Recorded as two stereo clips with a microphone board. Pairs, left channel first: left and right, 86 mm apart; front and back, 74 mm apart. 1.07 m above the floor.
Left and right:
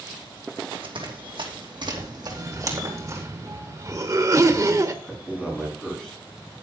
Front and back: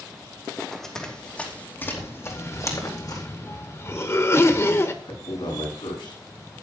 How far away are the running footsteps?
About 3 m.